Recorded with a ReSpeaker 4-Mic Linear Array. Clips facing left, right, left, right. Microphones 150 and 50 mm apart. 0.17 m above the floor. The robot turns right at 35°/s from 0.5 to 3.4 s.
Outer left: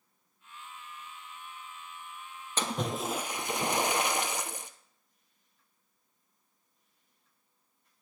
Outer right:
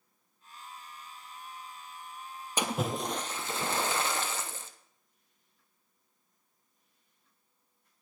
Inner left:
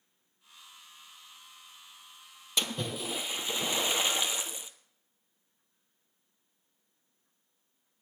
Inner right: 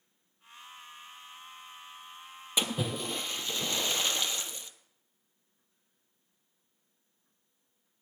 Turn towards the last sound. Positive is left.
turn(degrees=15)  # may be behind; listen again after turning